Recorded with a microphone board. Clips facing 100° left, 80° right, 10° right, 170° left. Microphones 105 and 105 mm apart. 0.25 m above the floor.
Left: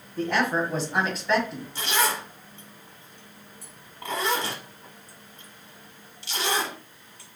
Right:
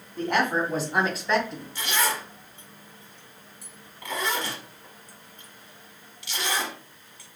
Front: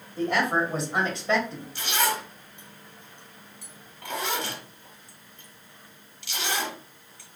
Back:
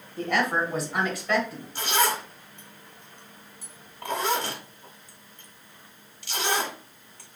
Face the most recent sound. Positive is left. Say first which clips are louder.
# left 2 dB, back 2 dB
turn(degrees=140)